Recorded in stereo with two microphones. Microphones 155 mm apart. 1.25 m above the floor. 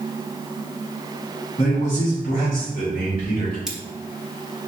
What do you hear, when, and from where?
1.6 s a man speaking: 40° left (ahead or behind), 0.9 m; by 3.6 s 65° left (ahead or behind), 1.9 m
3.7 s cutlery clinking: 5° right (ahead or behind), 0.6 m